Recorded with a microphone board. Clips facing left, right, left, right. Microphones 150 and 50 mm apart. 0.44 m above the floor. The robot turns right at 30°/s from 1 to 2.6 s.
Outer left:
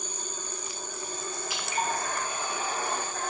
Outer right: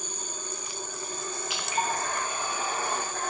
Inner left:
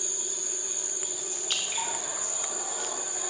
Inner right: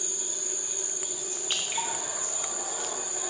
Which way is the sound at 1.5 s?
20° right (ahead or behind).